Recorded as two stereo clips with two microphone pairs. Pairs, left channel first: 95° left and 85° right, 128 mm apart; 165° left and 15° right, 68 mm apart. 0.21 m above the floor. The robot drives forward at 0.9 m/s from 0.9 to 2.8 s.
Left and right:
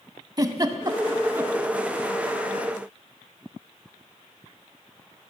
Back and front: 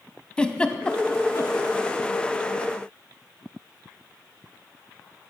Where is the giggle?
130° right, 0.5 m; by 1.6 s 160° right, 0.9 m.